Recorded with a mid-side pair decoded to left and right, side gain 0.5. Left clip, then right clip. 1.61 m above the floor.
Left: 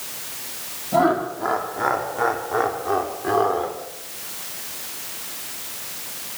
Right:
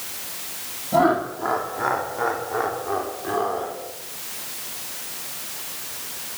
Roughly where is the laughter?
Ahead.